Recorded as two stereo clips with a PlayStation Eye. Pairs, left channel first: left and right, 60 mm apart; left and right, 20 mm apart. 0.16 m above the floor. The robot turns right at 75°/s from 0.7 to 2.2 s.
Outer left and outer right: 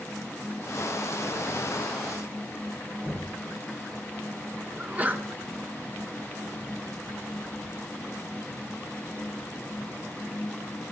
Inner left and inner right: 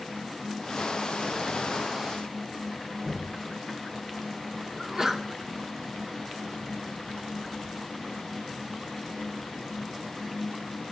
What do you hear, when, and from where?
3.0 s knocking: 5° right (ahead or behind), 7.5 m
4.8 s a sneeze: 25° right (ahead or behind), 1.6 m